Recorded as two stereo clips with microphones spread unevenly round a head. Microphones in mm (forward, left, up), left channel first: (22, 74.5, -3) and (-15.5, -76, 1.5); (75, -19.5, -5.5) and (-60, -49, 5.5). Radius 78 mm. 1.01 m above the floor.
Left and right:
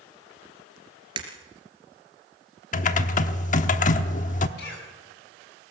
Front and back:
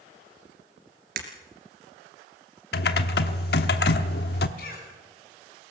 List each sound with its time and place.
1.2 s breaking glass: 165° right, 3 m
2.7 s typing on a keyboard: 35° left, 1.0 m
4.6 s a cough: 50° left, 8 m